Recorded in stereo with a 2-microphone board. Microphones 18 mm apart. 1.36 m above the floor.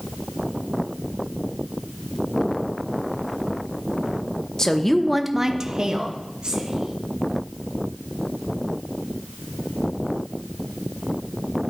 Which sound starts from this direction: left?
A woman speaking, at 4.6 s.